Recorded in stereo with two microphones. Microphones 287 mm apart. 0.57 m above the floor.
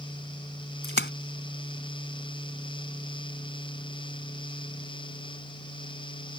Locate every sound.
0.8 s a splash: 35° left (ahead or behind)